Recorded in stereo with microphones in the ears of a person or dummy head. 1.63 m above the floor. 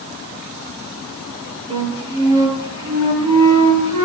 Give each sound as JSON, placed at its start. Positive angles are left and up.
{"t": 1.7, "sound": "a flute", "side_deg": -30, "distance_m": 5.0}